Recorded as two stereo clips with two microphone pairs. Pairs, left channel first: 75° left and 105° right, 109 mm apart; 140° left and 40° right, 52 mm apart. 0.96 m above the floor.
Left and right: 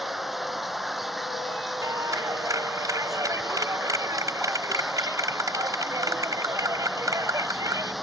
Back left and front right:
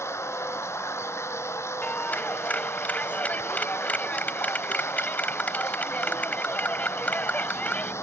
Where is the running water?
170° left.